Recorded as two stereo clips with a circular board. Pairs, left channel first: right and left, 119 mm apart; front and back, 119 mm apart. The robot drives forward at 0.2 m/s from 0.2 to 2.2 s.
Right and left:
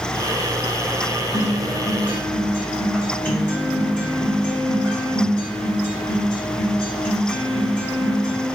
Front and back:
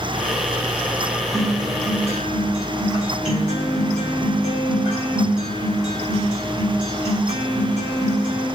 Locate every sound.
1.3 s a guitar: 160° right, 1.2 m; by 8.5 s 165° right, 1.4 m